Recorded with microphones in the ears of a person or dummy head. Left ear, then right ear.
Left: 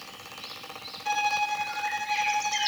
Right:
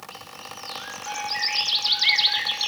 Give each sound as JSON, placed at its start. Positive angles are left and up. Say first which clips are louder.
{"t": 1.1, "sound": "a violin", "louder": "left 2 dB", "side_deg": 80, "distance_m": 1.4}